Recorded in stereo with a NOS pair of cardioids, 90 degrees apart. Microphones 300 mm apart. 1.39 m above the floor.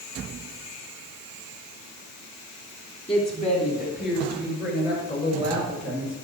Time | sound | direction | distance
3.1 | a woman speaking | 15° left | 3.5 m